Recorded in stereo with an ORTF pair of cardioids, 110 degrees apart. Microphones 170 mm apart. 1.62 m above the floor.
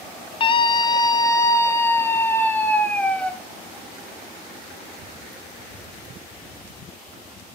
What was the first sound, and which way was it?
A scream, 30° left.